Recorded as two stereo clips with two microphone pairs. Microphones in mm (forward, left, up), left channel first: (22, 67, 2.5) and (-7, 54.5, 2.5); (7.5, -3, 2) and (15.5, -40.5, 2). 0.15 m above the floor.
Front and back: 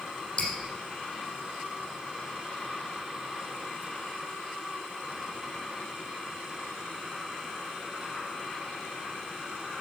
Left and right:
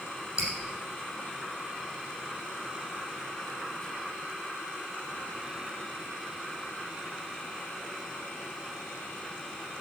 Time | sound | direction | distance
0.4 | dripping | 5° right | 3.5 m